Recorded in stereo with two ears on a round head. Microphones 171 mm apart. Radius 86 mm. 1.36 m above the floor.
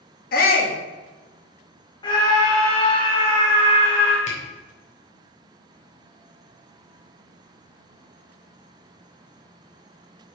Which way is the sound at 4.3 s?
40° left (ahead or behind).